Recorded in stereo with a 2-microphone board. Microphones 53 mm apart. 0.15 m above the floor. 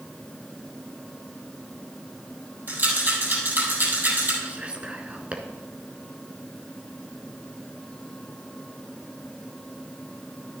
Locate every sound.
2.7 s a rattle: 40° right (ahead or behind), 6 m
4.4 s whispering: 25° right (ahead or behind), 1.5 m